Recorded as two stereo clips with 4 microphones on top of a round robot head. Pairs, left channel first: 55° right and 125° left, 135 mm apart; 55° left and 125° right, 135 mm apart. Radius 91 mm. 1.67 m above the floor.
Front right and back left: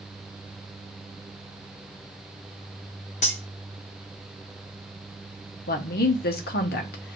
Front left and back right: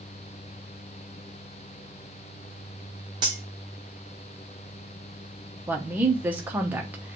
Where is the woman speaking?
50° right, 0.8 m.